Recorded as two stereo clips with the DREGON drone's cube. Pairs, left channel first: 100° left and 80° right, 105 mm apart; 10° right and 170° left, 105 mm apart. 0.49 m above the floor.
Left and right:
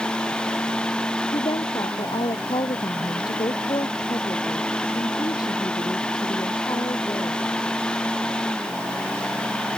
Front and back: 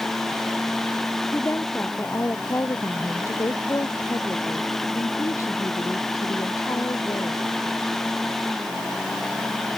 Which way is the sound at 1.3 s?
60° left.